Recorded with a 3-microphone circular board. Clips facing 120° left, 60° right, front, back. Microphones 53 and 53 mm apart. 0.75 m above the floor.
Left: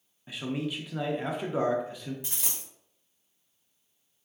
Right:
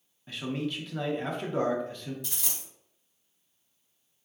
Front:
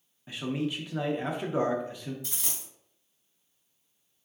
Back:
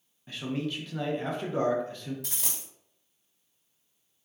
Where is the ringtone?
I don't hear a ringtone.